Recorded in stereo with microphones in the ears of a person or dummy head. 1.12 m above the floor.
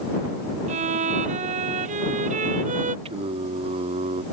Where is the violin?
40° right (ahead or behind).